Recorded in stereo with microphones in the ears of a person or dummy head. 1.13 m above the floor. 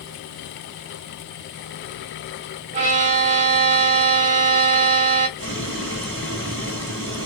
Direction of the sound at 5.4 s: 70° right (ahead or behind).